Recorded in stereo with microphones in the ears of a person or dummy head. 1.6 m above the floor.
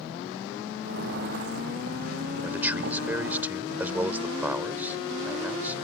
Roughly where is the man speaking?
Centre.